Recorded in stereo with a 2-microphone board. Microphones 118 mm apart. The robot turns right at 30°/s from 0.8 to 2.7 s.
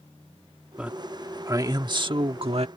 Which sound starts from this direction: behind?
A man speaking, at 0.8 s.